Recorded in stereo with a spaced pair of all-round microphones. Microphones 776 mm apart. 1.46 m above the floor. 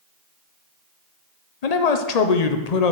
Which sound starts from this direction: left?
A man speaking, at 1.6 s.